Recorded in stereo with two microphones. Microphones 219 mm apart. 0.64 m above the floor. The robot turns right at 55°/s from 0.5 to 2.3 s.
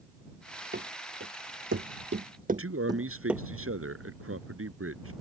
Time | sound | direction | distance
0.7 | running footsteps | 50° right (ahead or behind) | ?
2.5 | a man speaking | 80° right | ?